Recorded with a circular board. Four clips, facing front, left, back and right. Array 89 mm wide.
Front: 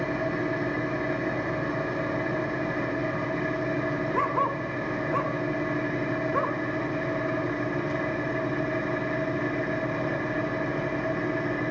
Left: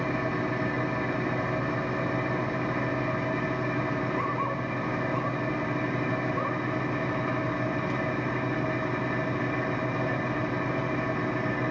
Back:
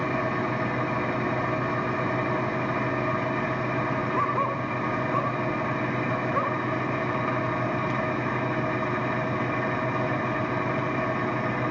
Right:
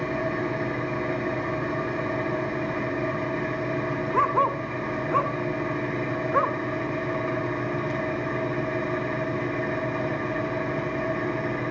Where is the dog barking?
90° right, 3 m.